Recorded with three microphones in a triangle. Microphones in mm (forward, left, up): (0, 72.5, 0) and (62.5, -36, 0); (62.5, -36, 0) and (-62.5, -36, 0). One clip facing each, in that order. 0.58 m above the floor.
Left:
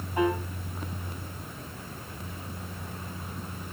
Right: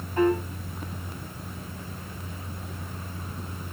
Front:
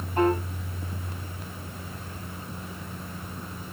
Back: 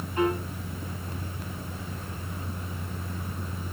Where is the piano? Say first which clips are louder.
Right 4 dB, front 3 dB; 45° left, 3.5 m.